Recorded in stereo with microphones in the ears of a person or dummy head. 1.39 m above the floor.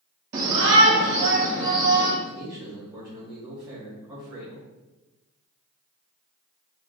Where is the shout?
35° right (ahead or behind), 0.5 m; by 2.1 s 55° right (ahead or behind), 2.5 m.